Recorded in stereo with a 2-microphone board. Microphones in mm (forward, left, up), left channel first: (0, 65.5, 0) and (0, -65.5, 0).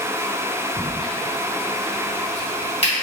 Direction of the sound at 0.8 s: 45° left (ahead or behind).